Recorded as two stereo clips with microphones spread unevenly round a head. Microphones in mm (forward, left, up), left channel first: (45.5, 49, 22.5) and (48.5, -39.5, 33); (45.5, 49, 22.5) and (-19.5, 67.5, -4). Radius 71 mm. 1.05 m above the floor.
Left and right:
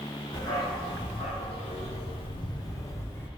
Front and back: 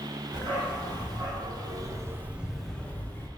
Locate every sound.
0.3 s a dog barking: 160° left, 1.6 m; by 3.3 s 25° left, 1.0 m